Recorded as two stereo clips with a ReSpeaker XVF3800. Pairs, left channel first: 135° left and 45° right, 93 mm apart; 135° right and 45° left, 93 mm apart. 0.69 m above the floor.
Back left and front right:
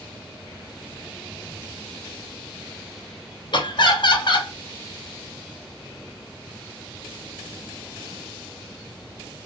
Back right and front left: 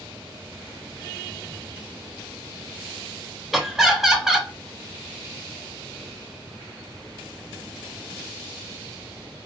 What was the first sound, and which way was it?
Laughter, 130° left.